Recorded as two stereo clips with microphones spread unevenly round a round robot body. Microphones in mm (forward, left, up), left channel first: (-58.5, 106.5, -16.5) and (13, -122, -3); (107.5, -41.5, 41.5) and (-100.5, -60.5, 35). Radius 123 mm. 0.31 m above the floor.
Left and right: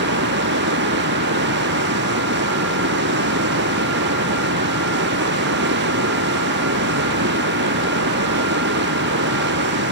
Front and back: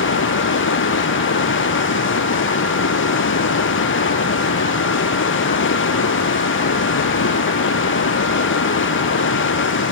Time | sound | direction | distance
0.0 | running water | 25° right | ?